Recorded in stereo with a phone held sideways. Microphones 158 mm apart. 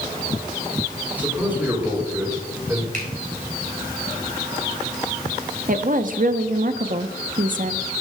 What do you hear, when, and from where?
1.2 s a man speaking: 10° right (ahead or behind), 4.5 m; by 2.8 s 20° right (ahead or behind), 3.5 m
2.9 s a finger snap: 60° right (ahead or behind), 3.5 m
5.7 s a woman speaking: 60° right (ahead or behind), 0.7 m